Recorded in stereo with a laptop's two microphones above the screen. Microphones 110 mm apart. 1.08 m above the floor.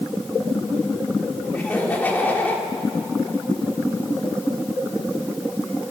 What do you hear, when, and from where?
1.5 s laughter: 15° left (ahead or behind), 3.5 m